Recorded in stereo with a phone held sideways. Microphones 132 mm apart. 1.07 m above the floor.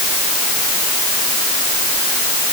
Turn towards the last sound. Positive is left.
No sound to turn to.